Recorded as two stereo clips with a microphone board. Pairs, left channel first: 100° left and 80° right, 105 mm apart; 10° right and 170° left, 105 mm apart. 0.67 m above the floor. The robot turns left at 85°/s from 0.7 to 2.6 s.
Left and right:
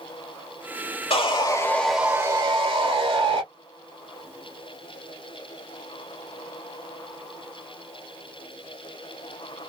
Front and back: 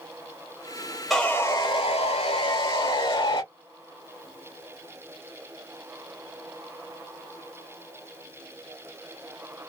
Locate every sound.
1.1 s sawing: 80° left, 1.7 m; by 3.4 s 45° right, 1.7 m